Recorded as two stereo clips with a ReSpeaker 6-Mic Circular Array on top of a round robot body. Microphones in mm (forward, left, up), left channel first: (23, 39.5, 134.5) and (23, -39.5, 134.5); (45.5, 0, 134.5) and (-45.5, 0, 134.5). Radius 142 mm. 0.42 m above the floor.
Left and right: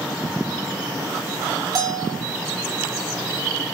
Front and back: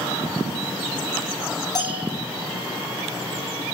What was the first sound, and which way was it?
A bell, 50° right.